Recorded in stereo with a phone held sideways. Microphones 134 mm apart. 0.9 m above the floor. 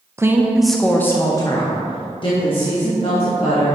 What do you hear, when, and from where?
0.2 s a woman speaking: 20° right (ahead or behind), 0.6 m; by 3.8 s 45° left (ahead or behind), 1.9 m